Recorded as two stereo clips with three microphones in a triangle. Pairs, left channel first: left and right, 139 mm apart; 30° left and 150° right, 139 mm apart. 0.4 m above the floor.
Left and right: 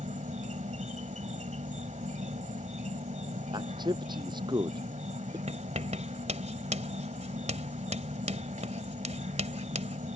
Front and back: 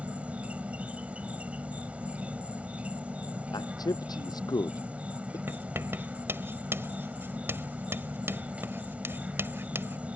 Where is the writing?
80° right.